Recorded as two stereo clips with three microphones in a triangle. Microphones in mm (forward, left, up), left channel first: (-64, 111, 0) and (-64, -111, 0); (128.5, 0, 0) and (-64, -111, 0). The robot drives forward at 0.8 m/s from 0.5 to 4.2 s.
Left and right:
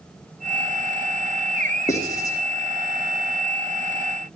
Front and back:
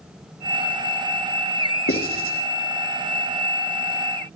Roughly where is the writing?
Ahead.